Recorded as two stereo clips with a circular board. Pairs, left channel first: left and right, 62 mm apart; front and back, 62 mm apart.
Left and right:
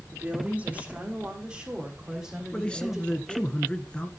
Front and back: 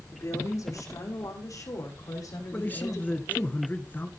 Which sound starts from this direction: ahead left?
A man speaking, at 2.5 s.